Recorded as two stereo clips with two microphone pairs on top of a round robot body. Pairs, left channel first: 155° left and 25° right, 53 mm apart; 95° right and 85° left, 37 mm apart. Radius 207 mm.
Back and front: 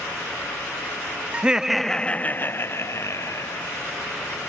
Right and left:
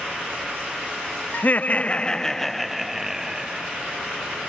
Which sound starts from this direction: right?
Laughter, at 1.3 s.